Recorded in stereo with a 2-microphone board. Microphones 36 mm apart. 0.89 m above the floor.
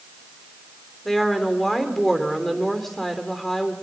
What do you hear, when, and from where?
1.1 s a woman speaking: 5° left (ahead or behind), 3 m